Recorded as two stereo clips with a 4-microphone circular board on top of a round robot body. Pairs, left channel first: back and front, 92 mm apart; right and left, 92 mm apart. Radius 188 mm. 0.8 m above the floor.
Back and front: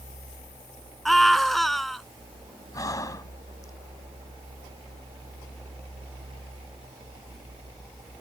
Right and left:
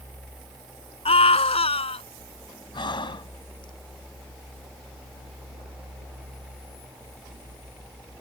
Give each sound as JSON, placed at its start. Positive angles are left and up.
{"t": 1.1, "sound": "a scream", "azimuth_deg": -90}
{"t": 2.7, "sound": "breathing", "azimuth_deg": -125}